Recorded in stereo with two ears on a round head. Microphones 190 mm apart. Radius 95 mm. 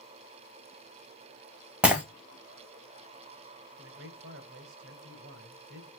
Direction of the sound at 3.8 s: 60° right (ahead or behind).